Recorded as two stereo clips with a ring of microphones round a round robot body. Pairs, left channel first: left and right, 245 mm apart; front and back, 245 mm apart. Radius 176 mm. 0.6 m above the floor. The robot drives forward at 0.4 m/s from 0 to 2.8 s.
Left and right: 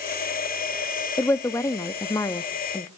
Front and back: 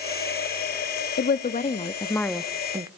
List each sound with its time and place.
1.2 s a woman speaking: 15° left, 0.8 m; by 2.9 s 140° left, 0.6 m